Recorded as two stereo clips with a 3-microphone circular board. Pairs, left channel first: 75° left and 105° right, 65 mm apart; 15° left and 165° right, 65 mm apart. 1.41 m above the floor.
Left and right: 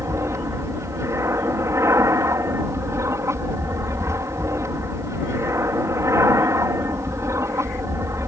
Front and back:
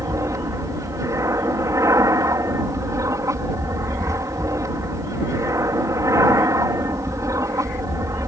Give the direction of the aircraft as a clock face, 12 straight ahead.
5 o'clock.